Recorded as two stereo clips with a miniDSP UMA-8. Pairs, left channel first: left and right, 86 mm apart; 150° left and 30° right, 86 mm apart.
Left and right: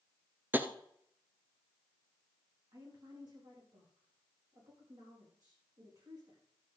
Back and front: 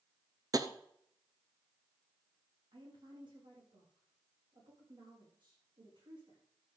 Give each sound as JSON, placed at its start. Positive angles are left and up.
{"t": 0.5, "sound": "tapping", "azimuth_deg": -30, "distance_m": 0.8}
{"t": 2.7, "sound": "a woman speaking", "azimuth_deg": -55, "distance_m": 6.5}